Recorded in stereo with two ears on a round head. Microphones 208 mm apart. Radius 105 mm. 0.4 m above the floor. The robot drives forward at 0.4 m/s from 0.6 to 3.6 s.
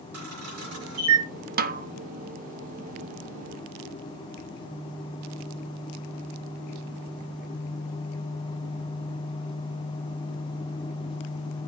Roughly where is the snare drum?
Right.